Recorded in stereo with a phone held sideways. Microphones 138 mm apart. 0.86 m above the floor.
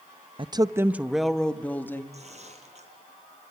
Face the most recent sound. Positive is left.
turn(degrees=-50)  # may be behind; listen again after turning